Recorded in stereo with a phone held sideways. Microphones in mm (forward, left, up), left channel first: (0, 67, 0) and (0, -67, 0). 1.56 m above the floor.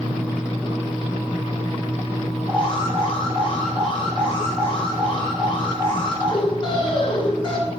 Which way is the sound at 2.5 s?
40° left (ahead or behind).